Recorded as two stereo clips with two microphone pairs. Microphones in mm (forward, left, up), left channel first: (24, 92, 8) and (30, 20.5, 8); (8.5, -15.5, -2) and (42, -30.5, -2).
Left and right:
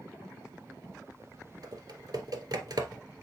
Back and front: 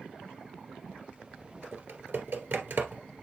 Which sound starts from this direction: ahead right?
Typing on a keyboard, at 1.6 s.